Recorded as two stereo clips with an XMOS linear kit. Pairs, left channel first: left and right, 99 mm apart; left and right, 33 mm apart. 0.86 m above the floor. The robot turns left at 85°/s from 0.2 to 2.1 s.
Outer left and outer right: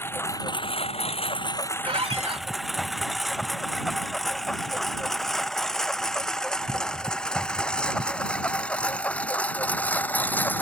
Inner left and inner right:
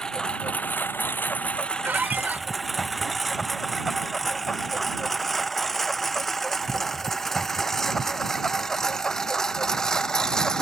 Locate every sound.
0.0 s a lawn mower: 25° left (ahead or behind); by 10.6 s 20° left (ahead or behind)
1.8 s a squeak: 75° right (ahead or behind); by 2.5 s 80° right